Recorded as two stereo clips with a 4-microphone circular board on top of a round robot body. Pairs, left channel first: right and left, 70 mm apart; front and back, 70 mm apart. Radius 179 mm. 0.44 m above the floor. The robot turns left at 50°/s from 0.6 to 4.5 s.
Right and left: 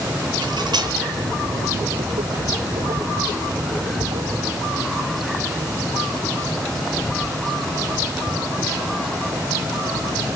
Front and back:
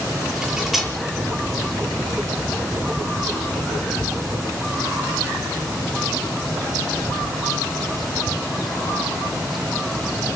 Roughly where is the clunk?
I don't hear a clunk.